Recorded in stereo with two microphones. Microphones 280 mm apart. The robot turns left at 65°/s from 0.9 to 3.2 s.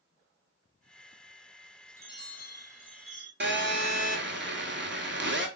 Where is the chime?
170° left, 1.3 m; by 3.3 s 90° left, 1.3 m.